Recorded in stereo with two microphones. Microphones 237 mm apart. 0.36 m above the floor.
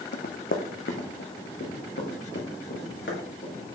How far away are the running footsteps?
About 0.8 m.